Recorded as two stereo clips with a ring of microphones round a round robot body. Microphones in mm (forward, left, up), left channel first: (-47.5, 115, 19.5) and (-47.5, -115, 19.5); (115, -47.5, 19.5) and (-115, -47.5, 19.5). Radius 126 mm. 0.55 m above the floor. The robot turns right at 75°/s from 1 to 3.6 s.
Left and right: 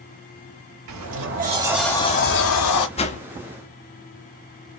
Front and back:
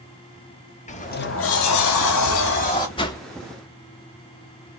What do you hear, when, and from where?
0.9 s a sliding door: 60° right, 0.9 m; by 2.9 s 80° left, 0.9 m
3.0 s a whoosh: 50° left, 0.7 m; by 3.2 s 65° left, 0.7 m